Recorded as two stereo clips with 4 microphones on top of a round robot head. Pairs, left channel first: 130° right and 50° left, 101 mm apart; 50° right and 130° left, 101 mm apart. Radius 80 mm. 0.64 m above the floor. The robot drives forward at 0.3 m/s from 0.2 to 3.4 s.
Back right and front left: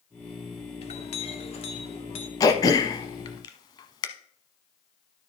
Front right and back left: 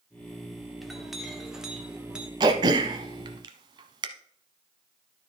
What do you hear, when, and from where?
0.8 s a clink: 140° right, 1.5 m; by 2.3 s 150° right, 1.8 m
2.4 s throat clearing: 175° left, 0.6 m; by 4.1 s straight behind, 0.9 m